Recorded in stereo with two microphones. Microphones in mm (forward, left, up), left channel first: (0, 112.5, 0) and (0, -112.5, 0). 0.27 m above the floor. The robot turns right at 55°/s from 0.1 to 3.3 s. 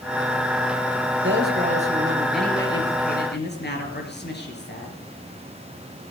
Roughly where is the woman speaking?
Ahead right.